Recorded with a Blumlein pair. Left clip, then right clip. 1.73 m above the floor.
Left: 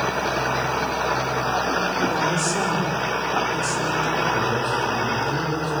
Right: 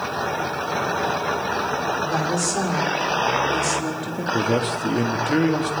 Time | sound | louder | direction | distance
2.0 | a woman speaking | left 1 dB | 5° right | 6.5 m
4.3 | a man speaking | even | 55° right | 3 m